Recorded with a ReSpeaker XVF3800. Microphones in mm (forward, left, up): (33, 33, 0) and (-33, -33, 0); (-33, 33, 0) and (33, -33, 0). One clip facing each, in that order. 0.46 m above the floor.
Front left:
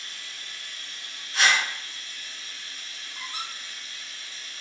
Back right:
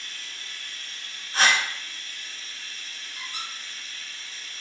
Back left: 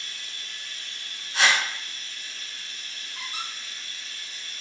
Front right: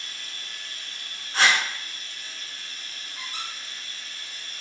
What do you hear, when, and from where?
0.0 s running water: 25° right, 0.7 m
1.3 s a whoosh: 85° right, 0.8 m
3.1 s a squeak: 95° left, 1.1 m